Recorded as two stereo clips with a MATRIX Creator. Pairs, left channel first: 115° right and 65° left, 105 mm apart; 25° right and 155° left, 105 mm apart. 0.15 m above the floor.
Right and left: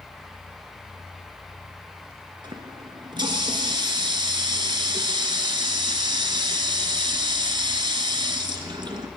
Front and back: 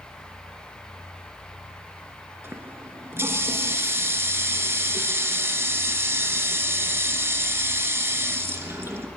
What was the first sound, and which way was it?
A running tap, 95° left.